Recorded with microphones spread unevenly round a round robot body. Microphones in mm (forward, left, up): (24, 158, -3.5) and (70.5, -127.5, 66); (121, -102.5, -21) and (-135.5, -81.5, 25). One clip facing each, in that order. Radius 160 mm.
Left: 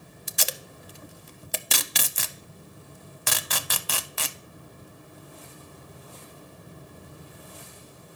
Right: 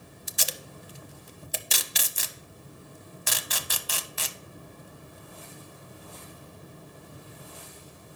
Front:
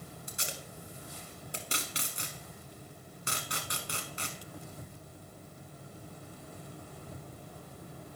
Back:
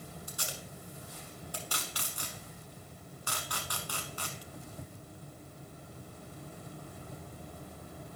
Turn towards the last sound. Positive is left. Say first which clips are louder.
# left 3 dB, even
turn(degrees=65)